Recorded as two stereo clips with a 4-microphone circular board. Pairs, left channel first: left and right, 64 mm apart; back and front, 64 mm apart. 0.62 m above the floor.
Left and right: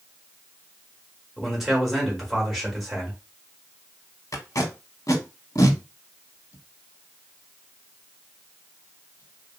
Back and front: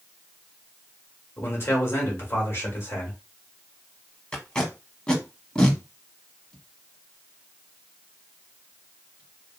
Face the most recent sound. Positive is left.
turn(degrees=100)